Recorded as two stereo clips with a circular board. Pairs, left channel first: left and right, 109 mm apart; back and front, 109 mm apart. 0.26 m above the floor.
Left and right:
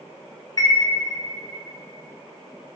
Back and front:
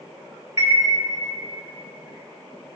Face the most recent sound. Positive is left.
turn(degrees=50)